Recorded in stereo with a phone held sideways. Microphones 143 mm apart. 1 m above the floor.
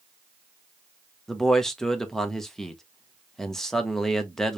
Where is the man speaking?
Centre (ahead or behind), 0.8 m.